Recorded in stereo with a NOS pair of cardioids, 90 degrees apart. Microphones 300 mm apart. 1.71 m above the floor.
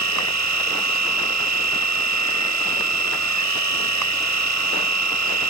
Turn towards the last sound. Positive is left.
turn(degrees=-70)